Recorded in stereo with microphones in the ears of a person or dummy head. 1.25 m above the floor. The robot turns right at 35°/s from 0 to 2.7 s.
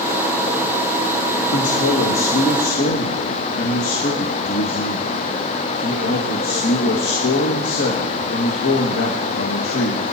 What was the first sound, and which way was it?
A man speaking, 80° left.